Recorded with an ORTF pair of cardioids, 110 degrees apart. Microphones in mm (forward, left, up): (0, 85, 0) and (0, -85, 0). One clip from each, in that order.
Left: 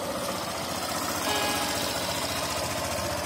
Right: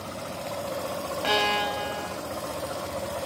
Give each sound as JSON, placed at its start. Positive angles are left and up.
{"t": 1.2, "sound": "a violin", "azimuth_deg": -40}